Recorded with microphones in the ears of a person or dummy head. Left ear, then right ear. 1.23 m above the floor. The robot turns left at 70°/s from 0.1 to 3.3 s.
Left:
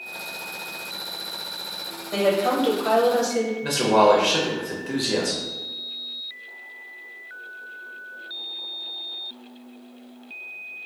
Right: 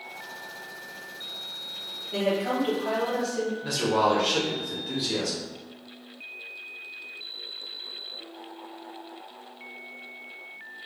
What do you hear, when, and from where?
2.1 s a woman speaking: 120° left, 0.7 m; by 3.5 s 40° left, 0.7 m
3.6 s a man speaking: 25° left (ahead or behind), 0.7 m